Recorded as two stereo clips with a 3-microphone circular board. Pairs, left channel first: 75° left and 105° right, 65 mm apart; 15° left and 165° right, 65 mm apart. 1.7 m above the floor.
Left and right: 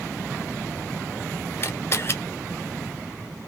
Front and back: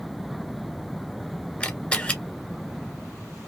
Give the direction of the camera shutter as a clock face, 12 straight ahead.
9 o'clock.